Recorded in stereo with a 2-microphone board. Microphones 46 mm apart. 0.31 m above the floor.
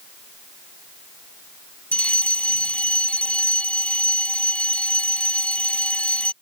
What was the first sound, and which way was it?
A fire alarm, 25° left (ahead or behind).